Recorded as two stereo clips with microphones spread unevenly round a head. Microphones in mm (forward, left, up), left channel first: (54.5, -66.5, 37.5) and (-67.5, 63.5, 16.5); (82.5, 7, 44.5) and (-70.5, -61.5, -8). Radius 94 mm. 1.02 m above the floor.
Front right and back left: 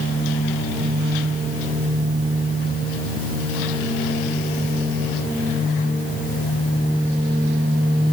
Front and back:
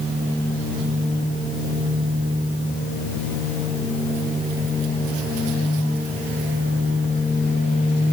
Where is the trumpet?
I don't hear a trumpet.